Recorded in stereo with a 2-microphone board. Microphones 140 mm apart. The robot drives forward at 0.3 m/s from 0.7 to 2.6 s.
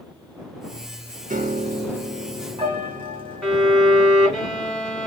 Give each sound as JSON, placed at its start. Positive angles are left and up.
{"t": 1.3, "sound": "a piano", "side_deg": -70, "distance_m": 0.5}
{"t": 3.4, "sound": "a violin", "side_deg": 5, "distance_m": 0.9}